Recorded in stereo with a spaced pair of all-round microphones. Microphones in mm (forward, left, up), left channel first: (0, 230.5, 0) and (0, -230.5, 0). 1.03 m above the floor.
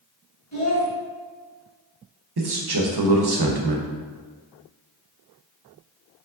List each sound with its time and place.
0.5 s a child speaking: 35° left (ahead or behind), 1.5 m
2.4 s a man speaking: 55° right (ahead or behind), 0.6 m